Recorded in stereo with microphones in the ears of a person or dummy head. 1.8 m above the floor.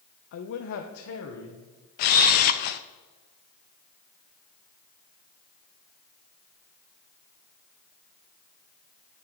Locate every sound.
0.3 s a man speaking: 60° left (ahead or behind), 0.7 m; by 1.7 s 80° left, 1.9 m
2.0 s a camera shutter: 40° left (ahead or behind), 0.5 m